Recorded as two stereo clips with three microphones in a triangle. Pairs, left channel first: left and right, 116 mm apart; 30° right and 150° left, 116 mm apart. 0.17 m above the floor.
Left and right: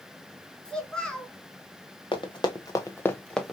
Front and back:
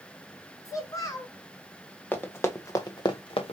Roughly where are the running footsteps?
Ahead left.